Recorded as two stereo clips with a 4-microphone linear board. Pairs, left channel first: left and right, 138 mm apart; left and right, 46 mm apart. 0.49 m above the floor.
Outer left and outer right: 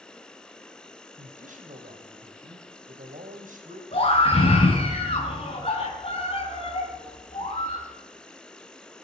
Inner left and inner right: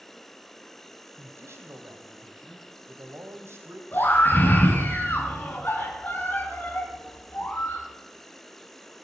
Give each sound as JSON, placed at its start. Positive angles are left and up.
{"t": 0.0, "sound": "an insect", "side_deg": 5, "distance_m": 0.9}
{"t": 1.2, "sound": "a man speaking", "side_deg": -70, "distance_m": 2.5}
{"t": 3.9, "sound": "a scream", "side_deg": 40, "distance_m": 3.5}